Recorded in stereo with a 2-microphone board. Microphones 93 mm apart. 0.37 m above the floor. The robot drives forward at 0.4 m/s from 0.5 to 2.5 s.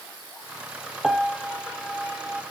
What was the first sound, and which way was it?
A piano, 5° right (ahead or behind).